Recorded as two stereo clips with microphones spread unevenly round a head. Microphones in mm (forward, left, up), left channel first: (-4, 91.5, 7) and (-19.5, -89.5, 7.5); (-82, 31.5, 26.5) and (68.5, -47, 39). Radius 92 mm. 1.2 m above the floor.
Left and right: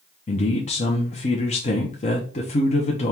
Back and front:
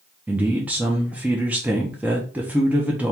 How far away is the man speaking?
About 0.7 m.